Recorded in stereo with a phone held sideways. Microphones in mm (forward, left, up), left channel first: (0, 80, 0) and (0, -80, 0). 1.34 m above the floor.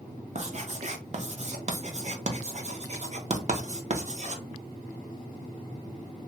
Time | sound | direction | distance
0.3 | writing | 45° right (ahead or behind) | 0.6 m